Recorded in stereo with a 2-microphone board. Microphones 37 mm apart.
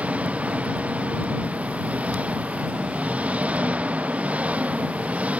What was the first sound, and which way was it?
An engine running, 35° right (ahead or behind).